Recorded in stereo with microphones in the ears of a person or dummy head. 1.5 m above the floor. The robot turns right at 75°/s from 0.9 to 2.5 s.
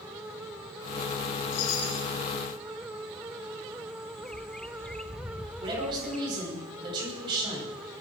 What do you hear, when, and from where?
1.5 s a chime: 65° left, 1.5 m; by 2.1 s 105° left, 1.5 m
4.2 s a bird: 5° left (ahead or behind), 0.6 m
5.6 s a woman speaking: 25° right (ahead or behind), 8.5 m